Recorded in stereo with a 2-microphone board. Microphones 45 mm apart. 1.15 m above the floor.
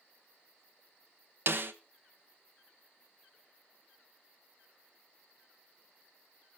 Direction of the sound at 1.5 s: 55° right (ahead or behind).